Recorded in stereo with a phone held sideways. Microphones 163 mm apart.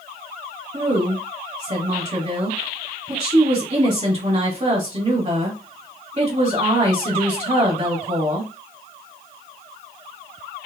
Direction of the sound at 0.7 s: 45° right (ahead or behind).